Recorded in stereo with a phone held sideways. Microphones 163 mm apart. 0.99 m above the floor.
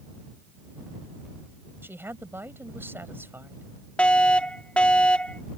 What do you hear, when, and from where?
1.8 s a woman speaking: 15° right (ahead or behind)
4.0 s a fire alarm: 5° left (ahead or behind)